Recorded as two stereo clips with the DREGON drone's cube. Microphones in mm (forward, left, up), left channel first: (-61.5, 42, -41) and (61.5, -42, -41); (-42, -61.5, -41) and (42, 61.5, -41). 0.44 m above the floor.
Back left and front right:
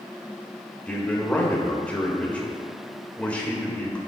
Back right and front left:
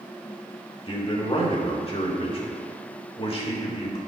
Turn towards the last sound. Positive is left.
turn(degrees=-140)